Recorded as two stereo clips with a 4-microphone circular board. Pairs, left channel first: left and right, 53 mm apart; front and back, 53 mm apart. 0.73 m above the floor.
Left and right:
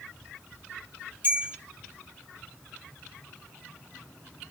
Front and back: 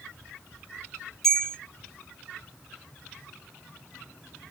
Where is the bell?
80° right, 1.3 m.